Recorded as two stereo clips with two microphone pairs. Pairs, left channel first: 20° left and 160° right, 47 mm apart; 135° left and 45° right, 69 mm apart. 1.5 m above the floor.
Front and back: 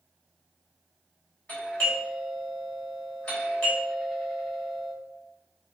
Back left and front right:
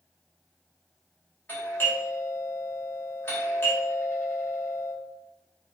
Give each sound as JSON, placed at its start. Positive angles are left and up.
{"t": 1.5, "sound": "a doorbell", "azimuth_deg": 75, "distance_m": 4.0}